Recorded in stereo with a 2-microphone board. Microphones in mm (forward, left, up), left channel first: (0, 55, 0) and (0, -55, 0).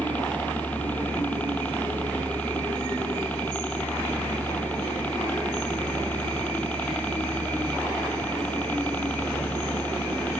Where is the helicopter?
15° left (ahead or behind).